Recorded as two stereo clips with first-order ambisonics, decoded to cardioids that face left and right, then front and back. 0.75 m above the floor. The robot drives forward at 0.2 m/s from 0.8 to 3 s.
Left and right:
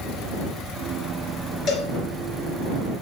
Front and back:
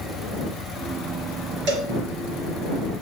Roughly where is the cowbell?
Behind left.